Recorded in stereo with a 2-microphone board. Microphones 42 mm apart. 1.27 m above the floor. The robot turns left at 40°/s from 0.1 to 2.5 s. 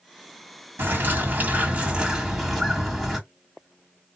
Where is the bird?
110° right, 2 m; by 3.2 s 175° right, 2 m.